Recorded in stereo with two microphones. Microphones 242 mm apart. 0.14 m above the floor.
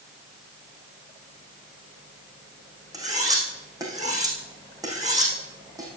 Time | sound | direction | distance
2.9 | cutlery clinking | 15° right (ahead or behind) | 4.5 m